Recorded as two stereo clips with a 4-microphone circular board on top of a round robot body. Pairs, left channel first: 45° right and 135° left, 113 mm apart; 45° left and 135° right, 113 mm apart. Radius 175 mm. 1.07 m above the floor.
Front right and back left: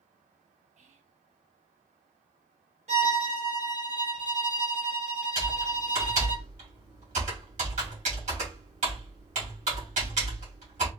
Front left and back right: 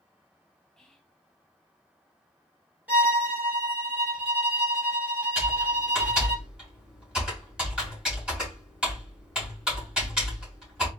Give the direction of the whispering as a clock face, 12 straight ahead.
8 o'clock.